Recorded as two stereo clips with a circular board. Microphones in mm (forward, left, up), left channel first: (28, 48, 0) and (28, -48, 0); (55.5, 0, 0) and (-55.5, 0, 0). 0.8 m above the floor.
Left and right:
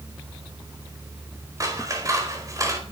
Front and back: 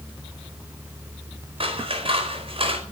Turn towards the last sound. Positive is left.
turn(degrees=-145)